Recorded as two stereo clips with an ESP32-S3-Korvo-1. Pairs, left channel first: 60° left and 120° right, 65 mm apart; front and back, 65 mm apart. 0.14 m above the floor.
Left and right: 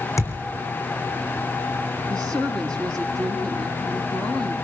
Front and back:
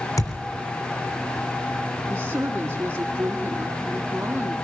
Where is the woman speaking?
135° left, 5.5 m.